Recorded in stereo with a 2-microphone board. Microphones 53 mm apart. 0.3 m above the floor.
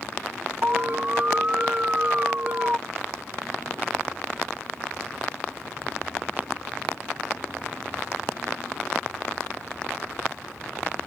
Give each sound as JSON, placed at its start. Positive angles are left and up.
{"t": 0.6, "sound": "an alarm", "side_deg": -30}